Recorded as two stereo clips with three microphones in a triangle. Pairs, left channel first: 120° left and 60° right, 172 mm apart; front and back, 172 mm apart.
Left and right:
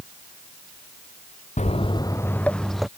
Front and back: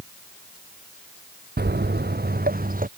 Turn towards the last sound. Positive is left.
turn(degrees=-150)